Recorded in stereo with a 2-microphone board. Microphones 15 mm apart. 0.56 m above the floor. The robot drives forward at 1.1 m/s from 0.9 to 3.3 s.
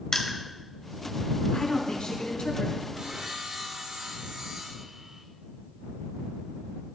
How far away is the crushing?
About 2 m.